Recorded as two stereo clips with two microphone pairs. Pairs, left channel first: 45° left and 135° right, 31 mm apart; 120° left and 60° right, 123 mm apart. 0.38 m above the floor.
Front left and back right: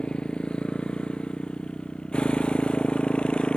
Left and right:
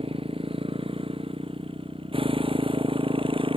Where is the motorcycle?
15° right.